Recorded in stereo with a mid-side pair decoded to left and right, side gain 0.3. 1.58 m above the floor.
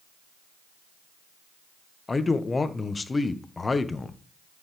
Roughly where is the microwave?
No microwave in this recording.